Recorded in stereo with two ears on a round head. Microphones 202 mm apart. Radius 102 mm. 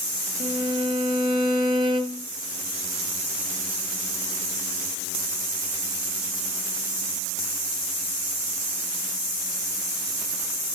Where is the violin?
25° right (ahead or behind), 2.5 m.